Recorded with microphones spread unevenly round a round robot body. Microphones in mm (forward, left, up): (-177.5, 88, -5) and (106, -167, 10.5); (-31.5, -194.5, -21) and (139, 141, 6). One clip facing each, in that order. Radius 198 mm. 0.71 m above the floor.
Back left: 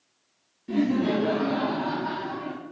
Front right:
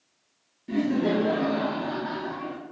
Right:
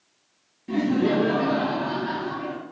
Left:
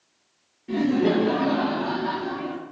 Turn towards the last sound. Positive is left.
turn(degrees=90)